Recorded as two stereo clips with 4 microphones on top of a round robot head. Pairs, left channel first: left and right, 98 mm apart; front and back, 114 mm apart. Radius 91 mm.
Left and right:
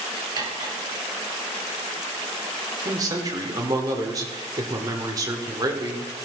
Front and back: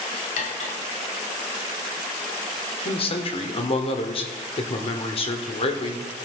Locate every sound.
0.4 s cutlery clinking: 35° right, 1.5 m
2.9 s a man speaking: 35° right, 1.7 m